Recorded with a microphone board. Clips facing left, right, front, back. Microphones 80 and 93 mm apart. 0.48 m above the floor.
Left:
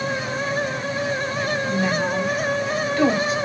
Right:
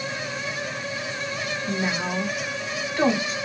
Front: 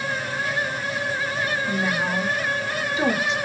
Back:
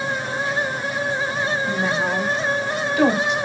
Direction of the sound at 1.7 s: 140° right.